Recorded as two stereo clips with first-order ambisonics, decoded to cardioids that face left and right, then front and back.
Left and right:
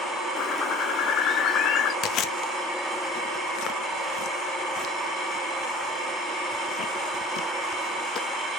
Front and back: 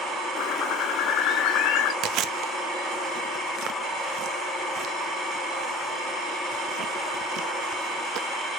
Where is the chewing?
135° left, 0.8 m.